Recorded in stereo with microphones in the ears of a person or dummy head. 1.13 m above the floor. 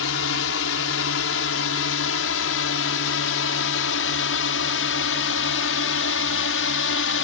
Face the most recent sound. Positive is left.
turn(degrees=60)  # may be behind; listen again after turning